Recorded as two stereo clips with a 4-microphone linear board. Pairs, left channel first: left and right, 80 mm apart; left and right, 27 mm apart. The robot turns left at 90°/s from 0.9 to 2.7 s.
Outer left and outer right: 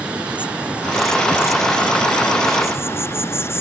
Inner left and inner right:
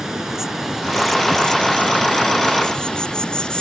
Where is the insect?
165° right; by 3.6 s 35° left.